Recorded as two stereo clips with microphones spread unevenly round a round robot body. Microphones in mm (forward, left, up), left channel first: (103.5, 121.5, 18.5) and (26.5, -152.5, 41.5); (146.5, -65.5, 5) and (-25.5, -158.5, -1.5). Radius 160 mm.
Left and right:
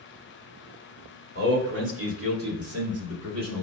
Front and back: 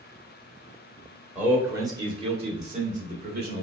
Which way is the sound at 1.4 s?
75° right.